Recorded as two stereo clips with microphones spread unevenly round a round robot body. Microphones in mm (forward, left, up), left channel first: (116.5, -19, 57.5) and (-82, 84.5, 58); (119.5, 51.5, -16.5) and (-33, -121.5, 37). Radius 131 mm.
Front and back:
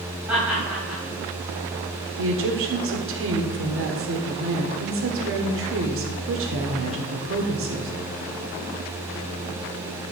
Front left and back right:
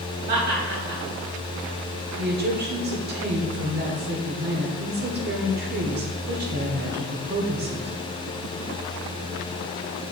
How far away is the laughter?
About 4 m.